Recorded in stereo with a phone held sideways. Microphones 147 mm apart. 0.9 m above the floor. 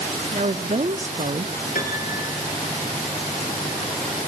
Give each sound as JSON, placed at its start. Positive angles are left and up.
{"t": 0.3, "sound": "a woman speaking", "side_deg": -55, "distance_m": 1.6}
{"t": 1.8, "sound": "a piano", "side_deg": 70, "distance_m": 4.5}